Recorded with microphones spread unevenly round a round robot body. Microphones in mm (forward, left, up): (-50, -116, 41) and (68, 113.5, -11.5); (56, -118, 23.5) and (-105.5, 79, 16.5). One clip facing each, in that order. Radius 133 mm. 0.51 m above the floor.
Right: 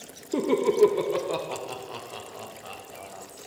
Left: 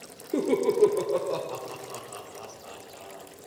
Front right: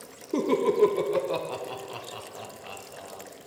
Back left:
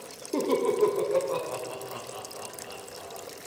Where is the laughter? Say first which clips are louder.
Right 1 dB, front right 2 dB; 10° right, 1.0 m; by 3.2 s 85° right, 3.5 m.